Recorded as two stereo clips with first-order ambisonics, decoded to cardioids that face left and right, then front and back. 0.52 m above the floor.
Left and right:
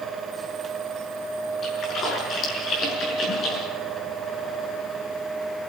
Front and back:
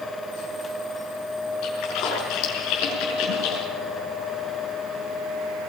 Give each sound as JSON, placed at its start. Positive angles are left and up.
{"t": 1.6, "sound": "a splash", "azimuth_deg": 30, "distance_m": 6.0}